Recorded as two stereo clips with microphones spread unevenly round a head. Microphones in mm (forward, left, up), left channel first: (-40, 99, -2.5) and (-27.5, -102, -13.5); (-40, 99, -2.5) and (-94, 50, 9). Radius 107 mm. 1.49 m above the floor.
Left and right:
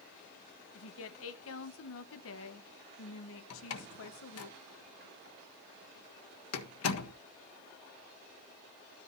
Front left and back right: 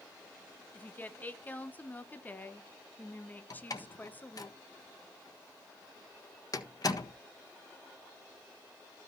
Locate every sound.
0.8 s a woman speaking: 110° left, 1.4 m
3.5 s a door slam: 80° left, 1.5 m